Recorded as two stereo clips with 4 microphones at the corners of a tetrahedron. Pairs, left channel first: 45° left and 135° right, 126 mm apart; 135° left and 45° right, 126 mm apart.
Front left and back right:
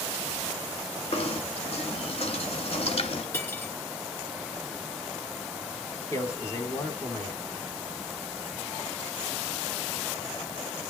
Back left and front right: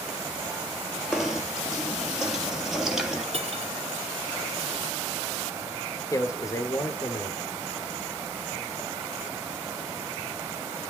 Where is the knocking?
40° left, 1.6 m.